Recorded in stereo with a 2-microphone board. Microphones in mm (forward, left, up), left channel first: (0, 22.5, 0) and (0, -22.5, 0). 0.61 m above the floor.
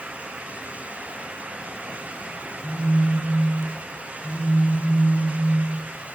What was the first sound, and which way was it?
A phone buzzing, centre (ahead or behind).